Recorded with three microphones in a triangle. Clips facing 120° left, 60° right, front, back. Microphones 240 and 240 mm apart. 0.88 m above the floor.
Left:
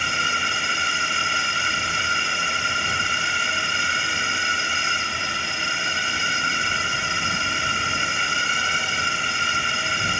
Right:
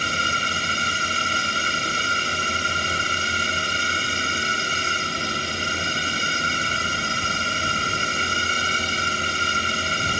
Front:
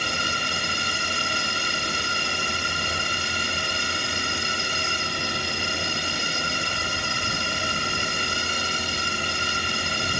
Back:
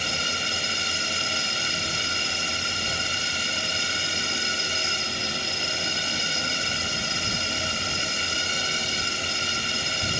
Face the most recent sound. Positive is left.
turn(degrees=-15)